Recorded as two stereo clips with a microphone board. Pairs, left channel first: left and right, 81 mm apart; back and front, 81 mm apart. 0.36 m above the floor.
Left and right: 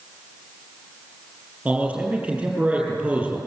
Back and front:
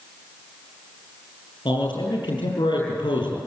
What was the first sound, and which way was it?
A man speaking, 165° right.